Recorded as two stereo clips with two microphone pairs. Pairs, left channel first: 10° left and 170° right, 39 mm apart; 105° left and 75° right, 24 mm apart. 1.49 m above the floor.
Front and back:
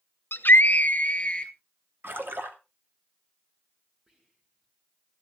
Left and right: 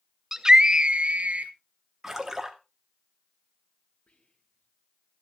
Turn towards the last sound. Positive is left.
turn(degrees=120)